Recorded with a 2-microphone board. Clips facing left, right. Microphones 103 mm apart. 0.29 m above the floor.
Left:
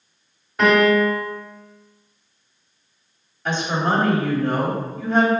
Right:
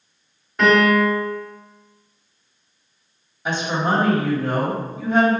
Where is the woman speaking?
10° right (ahead or behind), 1.5 m.